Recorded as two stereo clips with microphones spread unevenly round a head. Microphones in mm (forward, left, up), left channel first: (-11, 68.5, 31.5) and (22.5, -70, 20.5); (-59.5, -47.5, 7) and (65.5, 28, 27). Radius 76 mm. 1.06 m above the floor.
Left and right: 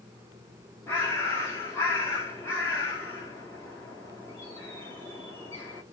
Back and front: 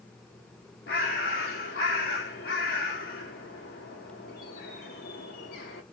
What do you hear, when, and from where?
0.9 s a bird: 175° left, 1.0 m